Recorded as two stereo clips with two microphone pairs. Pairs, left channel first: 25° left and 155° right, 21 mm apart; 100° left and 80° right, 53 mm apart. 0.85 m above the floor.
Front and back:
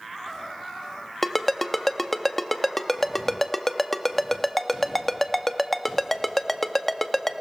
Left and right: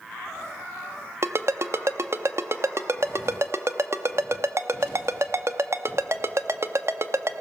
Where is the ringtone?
50° right, 0.8 m.